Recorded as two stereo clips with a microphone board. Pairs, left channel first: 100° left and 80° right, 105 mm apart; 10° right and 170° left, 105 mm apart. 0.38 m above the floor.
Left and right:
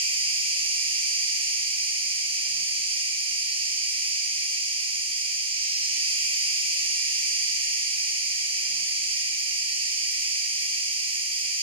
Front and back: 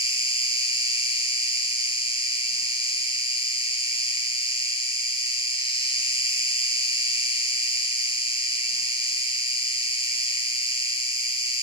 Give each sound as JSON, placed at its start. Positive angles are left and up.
{"t": 0.0, "sound": "an insect", "azimuth_deg": -45, "distance_m": 1.0}